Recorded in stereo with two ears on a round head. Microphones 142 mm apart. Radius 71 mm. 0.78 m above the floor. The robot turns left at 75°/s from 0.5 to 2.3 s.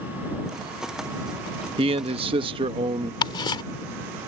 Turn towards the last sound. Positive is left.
turn(degrees=30)  # may be behind; listen again after turning